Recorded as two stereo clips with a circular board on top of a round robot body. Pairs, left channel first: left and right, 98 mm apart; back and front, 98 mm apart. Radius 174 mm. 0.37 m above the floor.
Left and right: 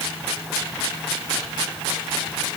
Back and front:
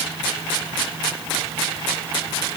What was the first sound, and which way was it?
Only background noise.